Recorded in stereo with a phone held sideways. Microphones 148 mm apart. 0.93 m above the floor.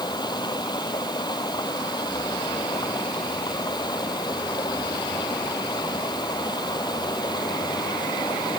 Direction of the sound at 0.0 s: 30° left (ahead or behind).